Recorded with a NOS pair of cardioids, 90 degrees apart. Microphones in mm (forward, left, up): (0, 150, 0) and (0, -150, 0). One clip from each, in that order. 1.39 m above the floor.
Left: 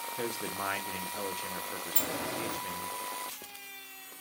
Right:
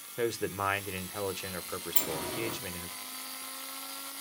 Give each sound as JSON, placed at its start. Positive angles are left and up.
{"t": 0.2, "sound": "a man speaking", "azimuth_deg": -20, "distance_m": 1.0}
{"t": 1.9, "sound": "a sliding door", "azimuth_deg": 15, "distance_m": 3.0}